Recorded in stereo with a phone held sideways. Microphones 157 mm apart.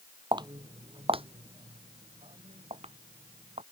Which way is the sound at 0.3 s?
25° right (ahead or behind).